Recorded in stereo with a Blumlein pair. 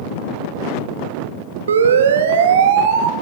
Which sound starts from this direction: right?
A siren, at 1.7 s.